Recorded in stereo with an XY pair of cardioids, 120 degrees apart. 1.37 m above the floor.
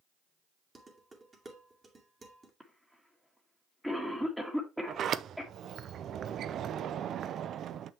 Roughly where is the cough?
Ahead.